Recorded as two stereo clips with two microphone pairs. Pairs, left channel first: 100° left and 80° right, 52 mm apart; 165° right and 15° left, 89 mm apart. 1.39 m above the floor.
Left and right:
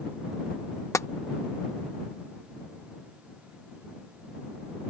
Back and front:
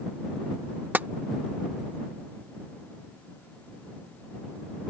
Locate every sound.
0.9 s tapping: 85° left